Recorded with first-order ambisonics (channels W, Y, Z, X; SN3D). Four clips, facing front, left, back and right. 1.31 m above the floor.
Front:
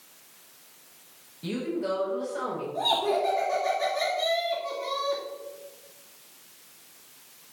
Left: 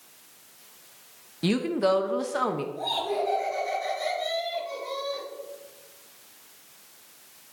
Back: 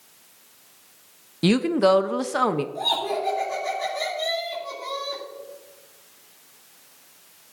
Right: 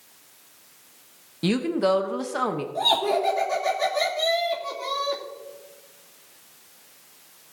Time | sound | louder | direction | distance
1.4 | a woman speaking | right 2 dB, back 11 dB | 175° right | 0.8 m
2.8 | laughter | right 10 dB, even | 85° right | 3 m